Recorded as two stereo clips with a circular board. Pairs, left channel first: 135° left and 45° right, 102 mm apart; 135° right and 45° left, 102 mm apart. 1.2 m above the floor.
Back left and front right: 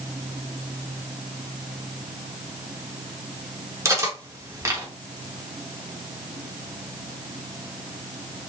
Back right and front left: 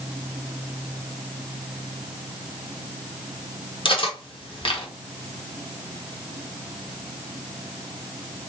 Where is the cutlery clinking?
105° right, 0.8 m.